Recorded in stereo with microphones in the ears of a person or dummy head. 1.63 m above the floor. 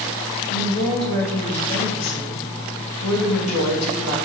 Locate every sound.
0.5 s a woman speaking: 80° left, 2 m